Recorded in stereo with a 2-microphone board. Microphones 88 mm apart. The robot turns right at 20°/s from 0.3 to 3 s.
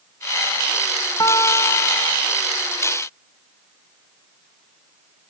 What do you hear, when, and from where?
1.2 s a guitar: 45° left (ahead or behind), 1.0 m; by 2.2 s 65° left (ahead or behind), 1.0 m